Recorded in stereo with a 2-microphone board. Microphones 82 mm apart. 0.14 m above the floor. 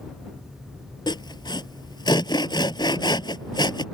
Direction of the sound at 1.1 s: 65° left (ahead or behind).